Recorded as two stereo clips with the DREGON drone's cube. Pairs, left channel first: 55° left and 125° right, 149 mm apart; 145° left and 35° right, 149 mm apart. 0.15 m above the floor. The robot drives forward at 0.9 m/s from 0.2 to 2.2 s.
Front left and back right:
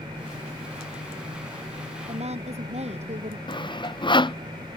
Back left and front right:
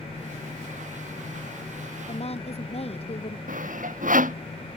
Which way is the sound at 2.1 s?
170° right.